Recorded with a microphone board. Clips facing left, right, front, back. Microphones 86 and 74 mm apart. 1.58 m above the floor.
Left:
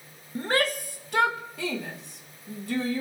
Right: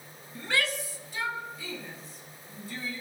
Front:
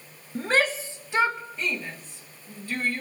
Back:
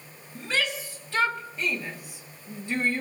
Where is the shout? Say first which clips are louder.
Left 5 dB, front 5 dB; 40° left, 1.2 m; by 3.0 s 115° left, 2.5 m.